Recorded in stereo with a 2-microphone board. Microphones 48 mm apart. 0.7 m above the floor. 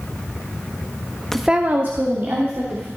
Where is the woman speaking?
10° left (ahead or behind), 0.6 m; by 2.9 s 60° right (ahead or behind), 2 m.